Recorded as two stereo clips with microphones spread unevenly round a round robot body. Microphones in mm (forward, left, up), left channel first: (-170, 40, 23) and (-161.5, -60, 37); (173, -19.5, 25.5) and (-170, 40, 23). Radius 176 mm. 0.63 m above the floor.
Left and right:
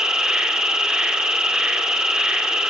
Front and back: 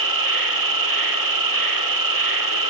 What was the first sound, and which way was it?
An insect, 175° right.